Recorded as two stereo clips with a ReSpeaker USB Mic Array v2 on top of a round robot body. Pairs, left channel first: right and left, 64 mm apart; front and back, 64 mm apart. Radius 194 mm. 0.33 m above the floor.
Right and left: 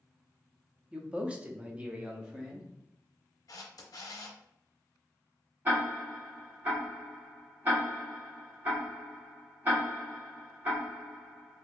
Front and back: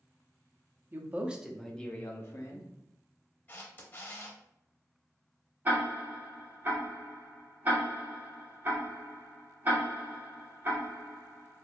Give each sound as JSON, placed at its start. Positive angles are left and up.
{"t": 0.9, "sound": "a man speaking", "azimuth_deg": 155, "distance_m": 0.9}
{"t": 3.5, "sound": "a camera shutter", "azimuth_deg": -60, "distance_m": 0.7}
{"t": 5.7, "sound": "ticking", "azimuth_deg": 135, "distance_m": 1.8}